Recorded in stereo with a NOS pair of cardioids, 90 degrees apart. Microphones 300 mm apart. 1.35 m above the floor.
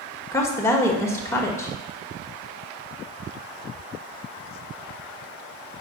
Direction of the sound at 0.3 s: 10° left.